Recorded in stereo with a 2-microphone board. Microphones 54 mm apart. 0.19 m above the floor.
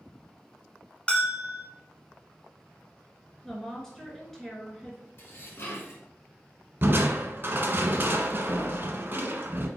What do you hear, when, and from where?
1.1 s a bell: 20° left (ahead or behind), 0.9 m
3.4 s a woman speaking: 5° left (ahead or behind), 2 m
5.2 s dishes clattering: 50° left (ahead or behind), 1.6 m
6.8 s crushing: 45° right (ahead or behind), 1.1 m